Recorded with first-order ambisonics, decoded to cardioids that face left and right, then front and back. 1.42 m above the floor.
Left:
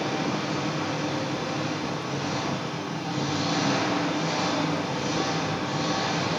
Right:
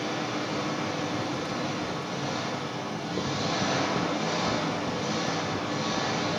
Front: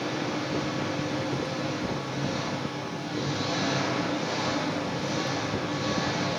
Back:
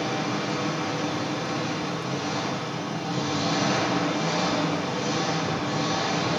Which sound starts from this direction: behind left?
An engine running, at 0.0 s.